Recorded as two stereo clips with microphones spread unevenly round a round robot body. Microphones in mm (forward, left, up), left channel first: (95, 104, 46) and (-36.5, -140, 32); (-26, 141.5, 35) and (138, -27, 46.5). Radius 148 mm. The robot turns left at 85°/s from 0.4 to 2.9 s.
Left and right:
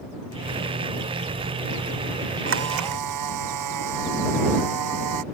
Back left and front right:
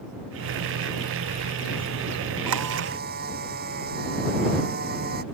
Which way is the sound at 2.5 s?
70° right.